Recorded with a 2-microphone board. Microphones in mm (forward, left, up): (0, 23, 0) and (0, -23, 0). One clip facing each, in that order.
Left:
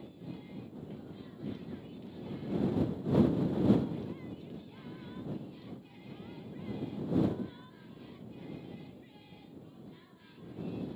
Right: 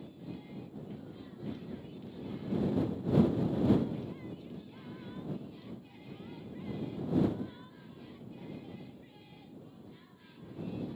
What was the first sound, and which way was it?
Only background noise.